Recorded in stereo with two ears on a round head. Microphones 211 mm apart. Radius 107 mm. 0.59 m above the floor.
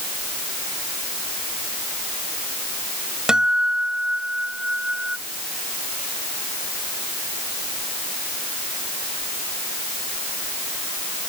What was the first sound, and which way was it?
A guitar, 5° right (ahead or behind).